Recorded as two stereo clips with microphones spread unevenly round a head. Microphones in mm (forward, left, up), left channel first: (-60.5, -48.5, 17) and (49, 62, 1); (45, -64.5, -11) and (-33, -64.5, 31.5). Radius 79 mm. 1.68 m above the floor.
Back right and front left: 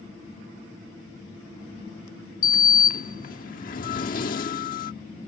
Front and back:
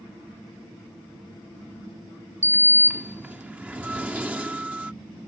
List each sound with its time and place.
2.4 s a sliding door: 140° right